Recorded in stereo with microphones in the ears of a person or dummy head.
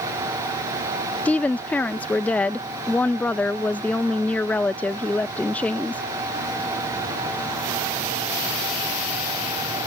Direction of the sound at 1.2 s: 5° left (ahead or behind).